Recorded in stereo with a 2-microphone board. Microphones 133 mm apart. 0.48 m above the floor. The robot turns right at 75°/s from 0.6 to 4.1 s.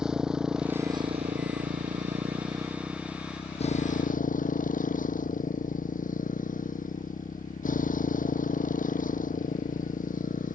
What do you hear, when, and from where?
0.0 s a motorcycle: 175° right; by 10.6 s 90° left